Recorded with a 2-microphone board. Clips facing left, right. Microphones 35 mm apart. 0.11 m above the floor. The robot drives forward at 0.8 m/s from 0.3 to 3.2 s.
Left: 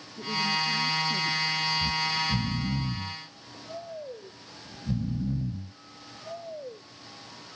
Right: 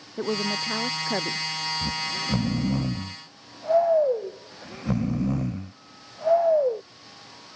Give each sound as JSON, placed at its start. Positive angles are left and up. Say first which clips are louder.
{"t": 0.2, "sound": "a woman speaking", "louder": "right 1 dB", "side_deg": -70}
{"t": 1.8, "sound": "snoring", "louder": "left 1 dB", "side_deg": -65}